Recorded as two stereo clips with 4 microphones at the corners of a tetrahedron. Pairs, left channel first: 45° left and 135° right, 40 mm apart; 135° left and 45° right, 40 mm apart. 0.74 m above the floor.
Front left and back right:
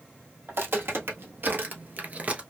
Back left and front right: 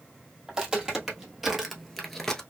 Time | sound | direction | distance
0.5 | footsteps | 115° right | 1.6 m